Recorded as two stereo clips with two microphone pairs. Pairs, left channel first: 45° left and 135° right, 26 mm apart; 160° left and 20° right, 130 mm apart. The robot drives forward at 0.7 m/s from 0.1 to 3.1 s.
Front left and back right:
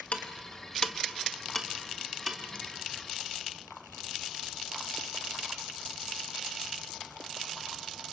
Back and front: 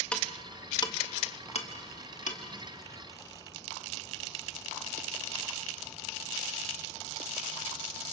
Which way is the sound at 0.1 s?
80° left.